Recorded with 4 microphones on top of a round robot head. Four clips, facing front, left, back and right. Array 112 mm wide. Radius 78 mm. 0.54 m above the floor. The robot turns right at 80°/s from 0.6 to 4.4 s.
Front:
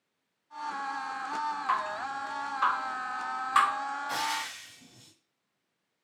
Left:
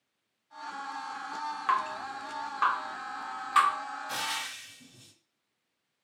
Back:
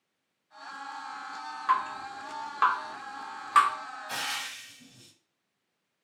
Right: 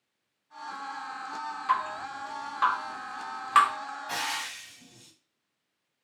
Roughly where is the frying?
Right.